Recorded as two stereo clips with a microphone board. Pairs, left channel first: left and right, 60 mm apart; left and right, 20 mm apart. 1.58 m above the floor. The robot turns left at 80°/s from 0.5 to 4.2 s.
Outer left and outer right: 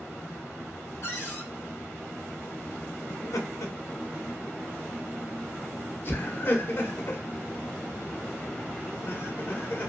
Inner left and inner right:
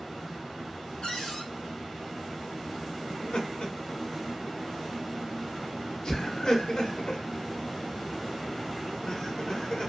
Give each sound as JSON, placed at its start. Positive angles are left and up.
{"t": 1.0, "sound": "a cupboard door", "azimuth_deg": 75, "distance_m": 1.3}
{"t": 3.1, "sound": "laughter", "side_deg": 45, "distance_m": 0.9}